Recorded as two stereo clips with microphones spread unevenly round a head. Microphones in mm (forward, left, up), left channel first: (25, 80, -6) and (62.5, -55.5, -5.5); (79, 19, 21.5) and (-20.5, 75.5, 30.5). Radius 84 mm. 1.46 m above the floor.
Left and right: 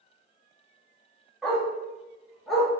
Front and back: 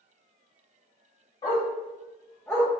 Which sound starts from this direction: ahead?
A dog barking, at 1.4 s.